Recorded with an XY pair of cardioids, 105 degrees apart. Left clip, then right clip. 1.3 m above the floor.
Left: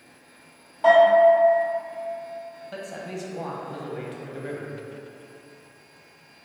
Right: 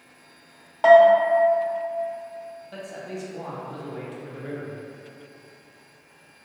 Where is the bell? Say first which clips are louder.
Right 2 dB; 65° right, 0.6 m.